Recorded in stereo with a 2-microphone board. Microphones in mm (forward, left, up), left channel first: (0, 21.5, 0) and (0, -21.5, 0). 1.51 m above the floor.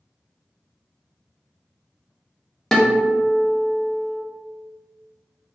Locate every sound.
2.7 s a guitar: 15° left (ahead or behind), 0.8 m